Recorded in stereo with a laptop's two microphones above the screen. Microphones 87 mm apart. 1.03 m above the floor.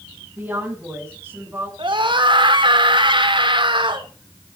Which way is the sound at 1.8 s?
65° right (ahead or behind).